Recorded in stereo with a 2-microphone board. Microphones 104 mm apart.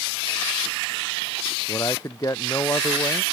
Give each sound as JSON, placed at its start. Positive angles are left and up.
{"t": 1.7, "sound": "a man speaking", "side_deg": 30}